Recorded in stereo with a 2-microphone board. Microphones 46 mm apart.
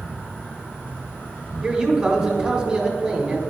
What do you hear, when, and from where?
0.0 s an insect: 25° left (ahead or behind), 2 m
1.6 s a man speaking: 15° right (ahead or behind), 1.1 m